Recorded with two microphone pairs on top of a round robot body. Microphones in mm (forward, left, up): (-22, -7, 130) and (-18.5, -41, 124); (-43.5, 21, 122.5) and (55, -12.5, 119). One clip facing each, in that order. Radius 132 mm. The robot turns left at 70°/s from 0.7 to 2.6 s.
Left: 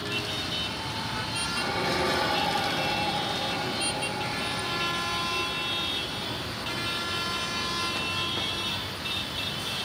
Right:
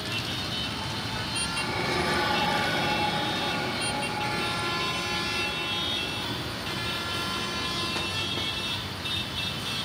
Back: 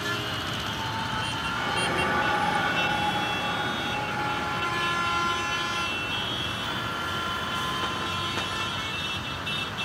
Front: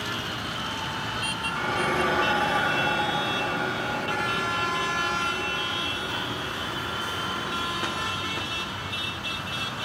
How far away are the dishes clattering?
About 6 m.